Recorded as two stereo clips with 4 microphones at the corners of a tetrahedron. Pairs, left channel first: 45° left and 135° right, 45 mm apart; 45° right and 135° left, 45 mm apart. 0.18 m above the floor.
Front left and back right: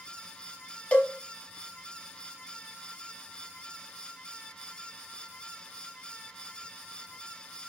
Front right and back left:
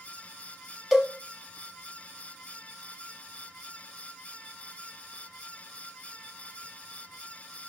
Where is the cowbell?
60° left, 0.6 m.